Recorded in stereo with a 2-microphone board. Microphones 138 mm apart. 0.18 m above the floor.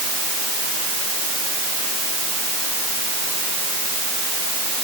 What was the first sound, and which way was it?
Only background noise.